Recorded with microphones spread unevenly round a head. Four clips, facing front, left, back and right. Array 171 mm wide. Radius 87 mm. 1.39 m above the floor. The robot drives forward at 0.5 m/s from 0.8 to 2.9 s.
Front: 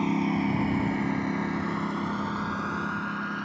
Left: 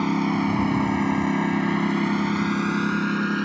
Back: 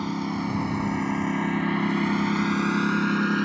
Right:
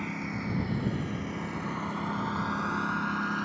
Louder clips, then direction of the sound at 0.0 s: Left 13 dB, front 2 dB; 75° left.